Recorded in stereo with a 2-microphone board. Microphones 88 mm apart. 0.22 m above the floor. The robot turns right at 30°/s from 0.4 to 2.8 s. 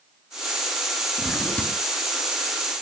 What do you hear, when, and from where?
1.2 s a drawer: 5° left (ahead or behind), 1.8 m; by 1.8 s 20° left (ahead or behind), 1.8 m